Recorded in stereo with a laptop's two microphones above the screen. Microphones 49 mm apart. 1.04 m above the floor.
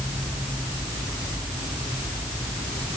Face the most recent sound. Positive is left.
No sound to turn to.